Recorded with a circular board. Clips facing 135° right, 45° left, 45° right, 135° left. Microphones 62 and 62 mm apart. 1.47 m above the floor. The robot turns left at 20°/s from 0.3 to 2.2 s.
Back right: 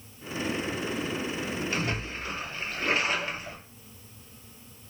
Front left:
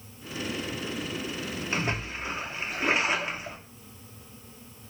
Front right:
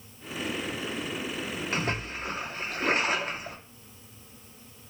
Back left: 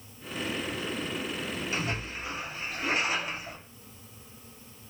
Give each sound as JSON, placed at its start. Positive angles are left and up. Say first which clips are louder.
{"t": 1.7, "sound": "a splash", "louder": "front left 1 dB, front right 2 dB", "azimuth_deg": -15, "distance_m": 0.7}